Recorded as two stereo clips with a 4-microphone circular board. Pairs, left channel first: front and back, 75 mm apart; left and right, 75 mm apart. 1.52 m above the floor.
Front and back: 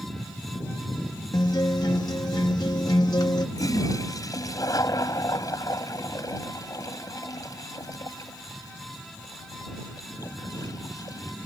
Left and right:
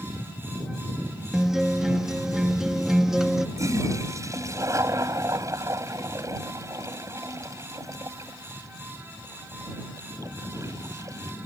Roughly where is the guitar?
Ahead.